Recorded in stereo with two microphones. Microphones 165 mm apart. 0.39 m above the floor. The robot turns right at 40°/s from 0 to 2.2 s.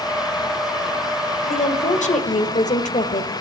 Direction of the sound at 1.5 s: 40° left (ahead or behind).